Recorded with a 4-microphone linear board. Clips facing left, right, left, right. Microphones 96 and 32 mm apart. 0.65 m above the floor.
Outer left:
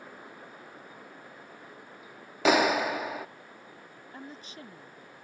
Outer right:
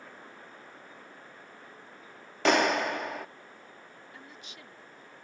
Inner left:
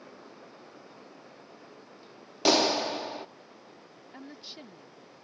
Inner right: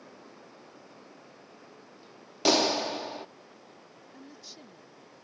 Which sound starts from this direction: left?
A woman speaking, at 4.1 s.